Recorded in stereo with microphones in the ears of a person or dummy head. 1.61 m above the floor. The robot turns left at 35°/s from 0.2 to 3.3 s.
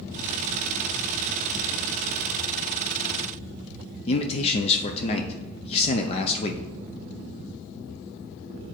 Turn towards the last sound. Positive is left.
turn(degrees=35)  # may be behind; listen again after turning